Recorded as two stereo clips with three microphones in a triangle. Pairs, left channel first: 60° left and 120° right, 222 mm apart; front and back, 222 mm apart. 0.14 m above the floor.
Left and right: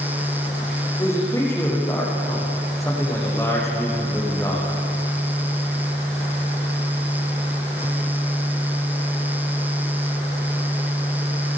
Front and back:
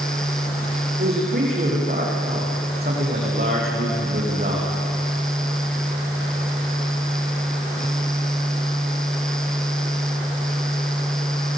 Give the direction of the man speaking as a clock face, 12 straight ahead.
7 o'clock.